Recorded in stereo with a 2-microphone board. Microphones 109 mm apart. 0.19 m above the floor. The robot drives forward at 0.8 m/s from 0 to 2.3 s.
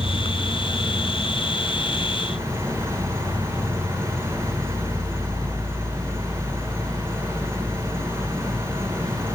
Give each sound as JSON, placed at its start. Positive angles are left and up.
{"t": 0.0, "sound": "an insect", "side_deg": -55, "distance_m": 1.1}